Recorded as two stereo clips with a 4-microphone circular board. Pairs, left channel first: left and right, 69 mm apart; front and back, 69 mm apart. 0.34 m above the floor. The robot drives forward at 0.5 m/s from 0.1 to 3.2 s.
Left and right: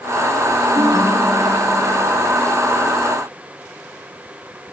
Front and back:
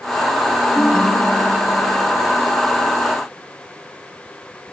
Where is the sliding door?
No sliding door in this recording.